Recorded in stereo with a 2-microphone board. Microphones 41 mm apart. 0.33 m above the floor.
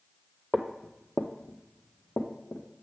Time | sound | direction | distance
0.5 | footsteps | 5° left (ahead or behind) | 0.7 m